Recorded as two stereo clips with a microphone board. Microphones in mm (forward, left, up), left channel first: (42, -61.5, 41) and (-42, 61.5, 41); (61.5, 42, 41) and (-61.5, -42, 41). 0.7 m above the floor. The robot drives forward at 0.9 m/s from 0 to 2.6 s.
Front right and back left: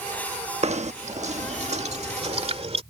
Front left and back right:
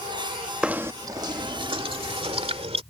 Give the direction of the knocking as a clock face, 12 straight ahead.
8 o'clock.